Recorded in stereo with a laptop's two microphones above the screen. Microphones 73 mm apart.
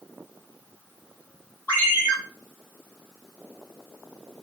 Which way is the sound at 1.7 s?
25° left (ahead or behind).